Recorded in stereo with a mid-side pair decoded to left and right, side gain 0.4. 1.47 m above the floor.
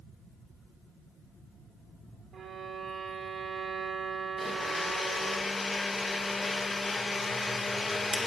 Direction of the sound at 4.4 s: 25° left.